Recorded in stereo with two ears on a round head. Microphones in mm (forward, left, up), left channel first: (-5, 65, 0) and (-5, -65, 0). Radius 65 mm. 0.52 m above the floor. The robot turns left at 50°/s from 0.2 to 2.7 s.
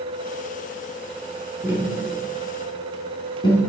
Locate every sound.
1.6 s tapping: 20° right (ahead or behind), 3.5 m; by 3.6 s 35° left (ahead or behind), 3.5 m